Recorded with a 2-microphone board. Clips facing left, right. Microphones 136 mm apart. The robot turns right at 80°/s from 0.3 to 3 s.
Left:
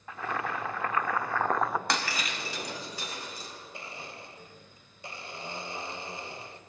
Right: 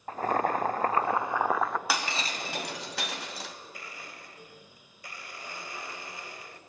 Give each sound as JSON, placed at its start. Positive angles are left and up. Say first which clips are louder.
{"t": 0.1, "sound": "boiling", "louder": "right 6 dB", "azimuth_deg": -110, "distance_m": 0.7}
{"t": 1.9, "sound": "breaking glass", "louder": "even", "side_deg": -5, "distance_m": 2.0}
{"t": 3.7, "sound": "a blender", "louder": "left 3 dB", "side_deg": 25, "distance_m": 1.4}